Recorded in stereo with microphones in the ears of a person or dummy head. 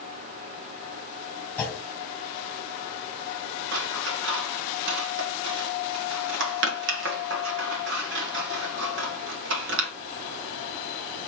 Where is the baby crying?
I don't hear a baby crying.